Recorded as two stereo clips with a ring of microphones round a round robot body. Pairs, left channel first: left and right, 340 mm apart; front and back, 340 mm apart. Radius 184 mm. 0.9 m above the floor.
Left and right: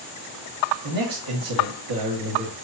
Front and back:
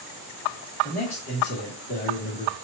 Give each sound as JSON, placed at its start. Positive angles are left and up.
{"t": 0.8, "sound": "a man speaking", "azimuth_deg": -65, "distance_m": 1.3}